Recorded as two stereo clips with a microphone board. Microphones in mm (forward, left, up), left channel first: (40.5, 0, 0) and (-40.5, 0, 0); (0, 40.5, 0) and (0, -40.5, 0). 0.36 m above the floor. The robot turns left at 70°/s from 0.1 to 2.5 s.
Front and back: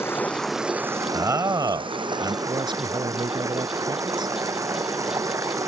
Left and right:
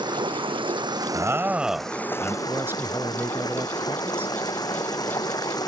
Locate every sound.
0.0 s running water: 60° right; by 5.7 s 130° left
1.1 s a man speaking: 130° right; by 2.4 s 145° left
2.5 s a man speaking: 150° right; by 4.3 s 155° right